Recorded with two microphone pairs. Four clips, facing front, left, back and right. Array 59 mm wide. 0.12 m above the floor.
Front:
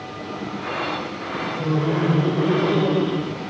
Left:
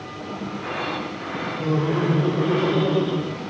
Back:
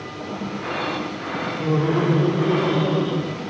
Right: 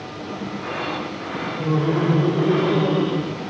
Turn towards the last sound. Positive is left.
turn(degrees=-65)